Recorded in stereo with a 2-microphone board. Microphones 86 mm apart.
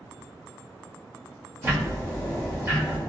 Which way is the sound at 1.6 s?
30° right (ahead or behind).